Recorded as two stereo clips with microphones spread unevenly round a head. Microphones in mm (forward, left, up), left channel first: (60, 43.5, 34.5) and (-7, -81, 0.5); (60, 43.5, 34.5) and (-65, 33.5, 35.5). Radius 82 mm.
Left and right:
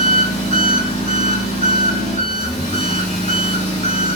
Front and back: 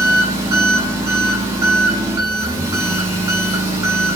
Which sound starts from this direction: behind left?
An engine running, at 0.0 s.